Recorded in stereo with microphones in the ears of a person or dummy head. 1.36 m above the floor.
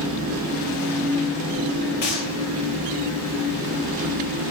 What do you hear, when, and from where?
0.0 s an engine running: 85° right, 0.8 m
2.0 s a gunshot: 40° left (ahead or behind), 0.5 m